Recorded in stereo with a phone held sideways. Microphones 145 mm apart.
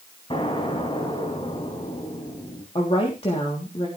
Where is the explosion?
40° left (ahead or behind), 3.5 m.